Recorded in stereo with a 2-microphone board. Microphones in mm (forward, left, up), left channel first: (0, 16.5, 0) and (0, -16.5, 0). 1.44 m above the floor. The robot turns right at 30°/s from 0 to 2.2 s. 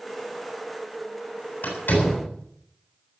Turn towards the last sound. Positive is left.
turn(degrees=85)